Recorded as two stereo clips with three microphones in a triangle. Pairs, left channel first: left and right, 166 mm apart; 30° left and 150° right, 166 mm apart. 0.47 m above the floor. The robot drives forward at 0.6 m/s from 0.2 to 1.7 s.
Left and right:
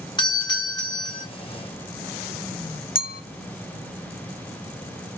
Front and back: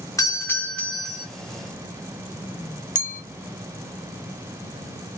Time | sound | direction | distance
0.2 | a doorbell | 75° left | 1.4 m
3.0 | a clink | 65° left | 0.9 m